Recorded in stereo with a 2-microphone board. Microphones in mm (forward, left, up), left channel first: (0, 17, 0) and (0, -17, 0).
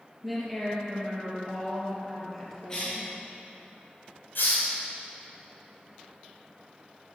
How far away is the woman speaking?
About 3.5 m.